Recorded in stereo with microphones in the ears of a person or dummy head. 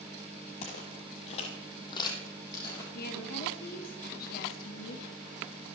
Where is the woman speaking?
50° left (ahead or behind), 1.6 m.